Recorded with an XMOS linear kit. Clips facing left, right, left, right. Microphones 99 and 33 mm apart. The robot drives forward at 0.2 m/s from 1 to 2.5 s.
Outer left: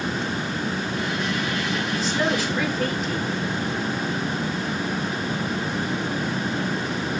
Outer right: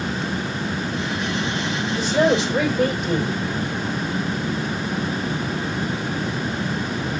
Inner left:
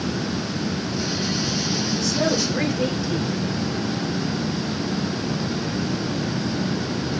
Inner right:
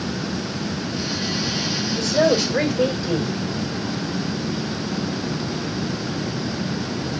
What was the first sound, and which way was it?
A woman speaking, 70° right (ahead or behind).